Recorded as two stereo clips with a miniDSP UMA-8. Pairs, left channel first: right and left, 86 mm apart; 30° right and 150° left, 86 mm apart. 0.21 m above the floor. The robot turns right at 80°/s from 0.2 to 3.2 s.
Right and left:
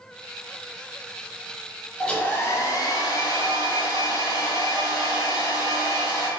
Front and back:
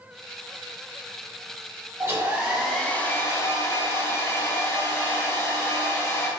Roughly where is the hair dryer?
Behind.